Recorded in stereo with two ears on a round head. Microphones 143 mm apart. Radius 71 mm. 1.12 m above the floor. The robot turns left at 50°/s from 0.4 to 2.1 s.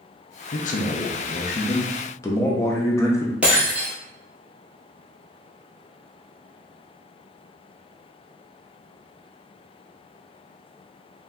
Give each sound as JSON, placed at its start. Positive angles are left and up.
{"t": 0.5, "sound": "a man speaking", "azimuth_deg": 105, "distance_m": 0.6}
{"t": 3.4, "sound": "breaking glass", "side_deg": -10, "distance_m": 1.3}